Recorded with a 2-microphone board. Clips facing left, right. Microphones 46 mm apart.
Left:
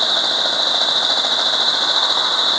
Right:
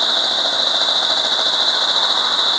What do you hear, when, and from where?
Only background noise.